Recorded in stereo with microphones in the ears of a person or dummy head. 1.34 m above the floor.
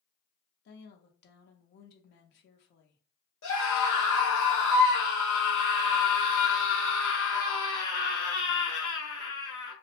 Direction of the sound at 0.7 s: 65° left (ahead or behind).